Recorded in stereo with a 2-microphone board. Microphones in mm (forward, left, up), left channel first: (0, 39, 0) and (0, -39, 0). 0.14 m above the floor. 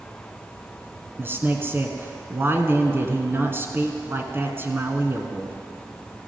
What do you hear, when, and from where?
1.2 s a man speaking: 30° right (ahead or behind), 1.2 m